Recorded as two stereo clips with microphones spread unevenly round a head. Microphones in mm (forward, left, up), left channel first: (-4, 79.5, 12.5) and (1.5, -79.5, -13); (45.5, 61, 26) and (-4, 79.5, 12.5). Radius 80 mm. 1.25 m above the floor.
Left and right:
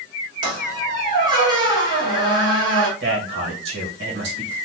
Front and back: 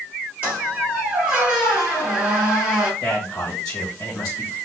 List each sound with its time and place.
0.4 s a squeak: 140° right, 1.3 m
3.0 s a man speaking: 85° right, 1.5 m